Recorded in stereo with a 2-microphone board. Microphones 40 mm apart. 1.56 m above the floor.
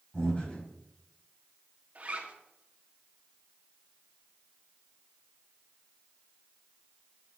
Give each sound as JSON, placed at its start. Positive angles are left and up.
{"t": 0.1, "sound": "breathing", "side_deg": 25, "distance_m": 5.5}
{"t": 1.9, "sound": "a zipper", "side_deg": -40, "distance_m": 1.8}